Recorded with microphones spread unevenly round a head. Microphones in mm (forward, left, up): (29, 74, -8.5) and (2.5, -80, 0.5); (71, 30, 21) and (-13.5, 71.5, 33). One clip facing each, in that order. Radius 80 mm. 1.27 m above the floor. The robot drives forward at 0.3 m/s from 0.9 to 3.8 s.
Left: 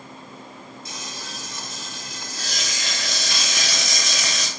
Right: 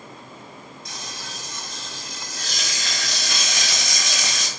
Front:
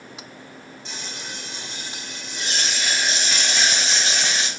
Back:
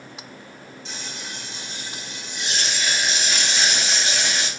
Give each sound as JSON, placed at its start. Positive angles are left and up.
{"t": 0.8, "sound": "frying", "azimuth_deg": -5, "distance_m": 1.6}